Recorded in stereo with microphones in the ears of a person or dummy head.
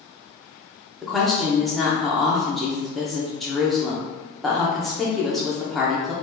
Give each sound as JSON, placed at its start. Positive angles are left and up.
{"t": 1.0, "sound": "a woman speaking", "side_deg": 0, "distance_m": 0.7}